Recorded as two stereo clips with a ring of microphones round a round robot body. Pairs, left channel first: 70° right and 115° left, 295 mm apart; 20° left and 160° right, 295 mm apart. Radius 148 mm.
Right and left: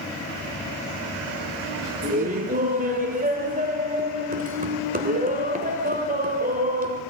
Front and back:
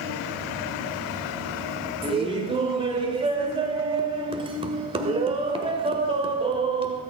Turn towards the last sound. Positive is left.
turn(degrees=145)